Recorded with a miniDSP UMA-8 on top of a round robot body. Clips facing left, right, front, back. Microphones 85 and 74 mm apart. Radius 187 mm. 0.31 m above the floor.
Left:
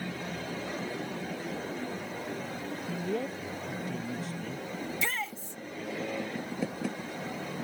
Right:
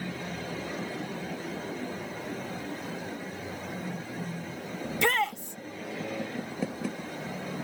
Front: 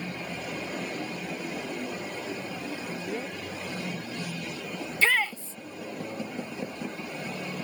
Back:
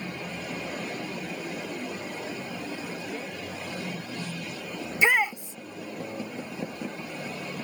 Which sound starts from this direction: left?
A man speaking, at 2.9 s.